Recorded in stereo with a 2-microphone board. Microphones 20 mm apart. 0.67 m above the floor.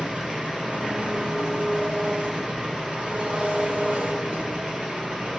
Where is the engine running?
75° right (ahead or behind), 4 m.